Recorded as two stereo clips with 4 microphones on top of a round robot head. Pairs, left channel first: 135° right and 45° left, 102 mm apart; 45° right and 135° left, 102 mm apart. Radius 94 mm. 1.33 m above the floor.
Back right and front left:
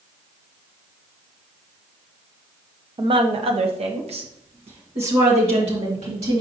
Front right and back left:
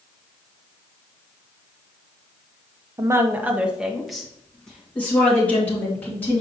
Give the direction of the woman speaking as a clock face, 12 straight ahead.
9 o'clock.